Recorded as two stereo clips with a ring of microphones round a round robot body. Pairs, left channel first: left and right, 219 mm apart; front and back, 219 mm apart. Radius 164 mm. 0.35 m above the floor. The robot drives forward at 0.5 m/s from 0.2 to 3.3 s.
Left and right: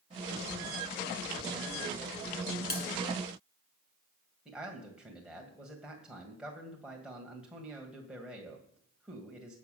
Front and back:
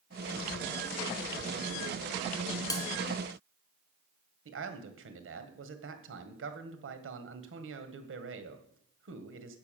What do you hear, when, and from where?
2.7 s a bell: 70° left, 2 m
4.5 s a man speaking: 175° right, 2 m